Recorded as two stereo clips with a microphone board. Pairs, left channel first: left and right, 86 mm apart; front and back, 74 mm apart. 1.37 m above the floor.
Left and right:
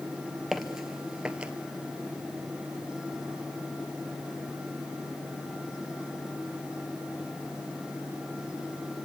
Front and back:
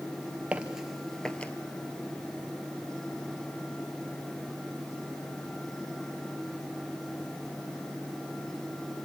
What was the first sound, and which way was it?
Footsteps, 175° right.